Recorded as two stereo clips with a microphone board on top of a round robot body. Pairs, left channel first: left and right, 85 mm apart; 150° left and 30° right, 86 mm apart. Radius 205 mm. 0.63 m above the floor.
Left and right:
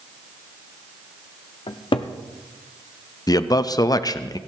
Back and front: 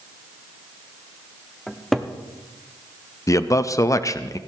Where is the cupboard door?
65° left, 0.6 m.